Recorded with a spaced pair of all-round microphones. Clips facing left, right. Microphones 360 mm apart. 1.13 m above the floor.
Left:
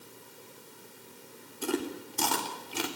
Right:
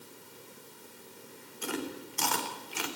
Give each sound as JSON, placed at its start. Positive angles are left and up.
{"t": 1.6, "sound": "chewing", "side_deg": 50, "distance_m": 3.5}